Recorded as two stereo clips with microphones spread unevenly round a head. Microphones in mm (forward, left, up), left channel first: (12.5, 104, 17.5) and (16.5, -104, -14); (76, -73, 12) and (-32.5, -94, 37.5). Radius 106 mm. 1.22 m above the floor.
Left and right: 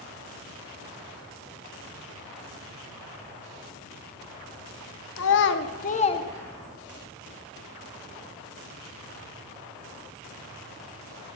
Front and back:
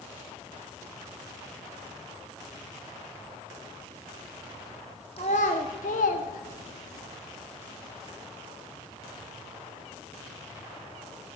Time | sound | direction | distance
5.2 | a child speaking | 80° left | 1.3 m